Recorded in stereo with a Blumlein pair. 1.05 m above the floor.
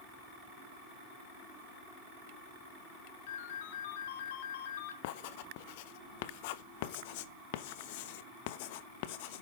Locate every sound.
3.3 s a ringtone: 55° left, 3 m
5.0 s writing: 50° left, 1.0 m